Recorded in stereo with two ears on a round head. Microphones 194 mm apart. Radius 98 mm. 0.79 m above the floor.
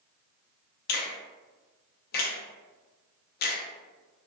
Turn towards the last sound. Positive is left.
turn(degrees=45)  # may be behind; listen again after turning